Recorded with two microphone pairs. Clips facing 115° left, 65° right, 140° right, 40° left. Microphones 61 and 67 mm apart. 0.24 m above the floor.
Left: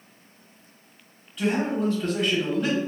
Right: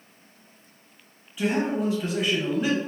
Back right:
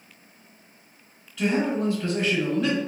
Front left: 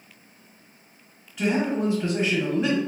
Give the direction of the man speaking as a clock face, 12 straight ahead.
12 o'clock.